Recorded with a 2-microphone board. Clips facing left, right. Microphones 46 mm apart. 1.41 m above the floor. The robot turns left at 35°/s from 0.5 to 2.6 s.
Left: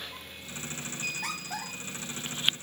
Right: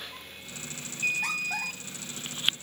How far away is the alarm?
About 2 m.